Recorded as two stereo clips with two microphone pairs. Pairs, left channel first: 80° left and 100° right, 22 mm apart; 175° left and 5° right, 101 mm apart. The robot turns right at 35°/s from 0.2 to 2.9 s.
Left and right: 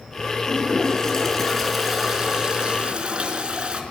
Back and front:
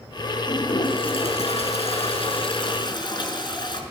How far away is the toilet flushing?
About 4.5 m.